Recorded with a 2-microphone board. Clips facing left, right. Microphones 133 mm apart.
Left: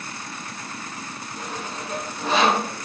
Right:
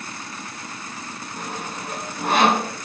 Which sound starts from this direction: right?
Sawing, at 1.4 s.